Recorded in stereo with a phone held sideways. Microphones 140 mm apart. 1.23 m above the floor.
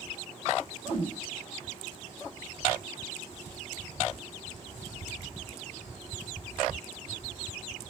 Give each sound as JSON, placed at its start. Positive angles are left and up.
{"t": 0.9, "sound": "a whoosh", "side_deg": 45, "distance_m": 1.1}